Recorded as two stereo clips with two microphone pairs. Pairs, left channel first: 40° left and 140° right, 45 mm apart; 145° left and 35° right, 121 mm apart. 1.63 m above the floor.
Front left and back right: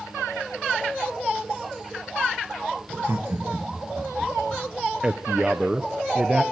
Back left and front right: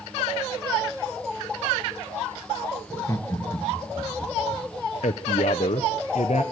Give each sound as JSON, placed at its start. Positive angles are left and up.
{"t": 2.9, "sound": "laughter", "azimuth_deg": -145, "distance_m": 1.5}
{"t": 5.0, "sound": "a man speaking", "azimuth_deg": 150, "distance_m": 0.8}